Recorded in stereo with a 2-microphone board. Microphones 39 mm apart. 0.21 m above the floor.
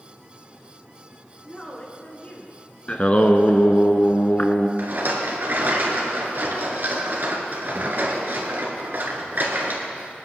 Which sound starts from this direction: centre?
A woman speaking, at 1.4 s.